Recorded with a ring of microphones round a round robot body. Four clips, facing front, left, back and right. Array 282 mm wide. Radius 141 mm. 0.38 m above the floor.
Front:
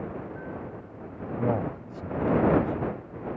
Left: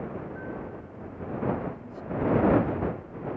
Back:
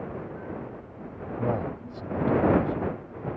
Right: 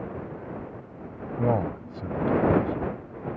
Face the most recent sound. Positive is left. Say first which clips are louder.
# right 6 dB, front 1 dB
turn(degrees=-75)